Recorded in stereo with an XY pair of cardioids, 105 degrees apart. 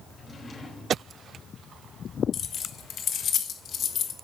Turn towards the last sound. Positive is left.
turn(degrees=60)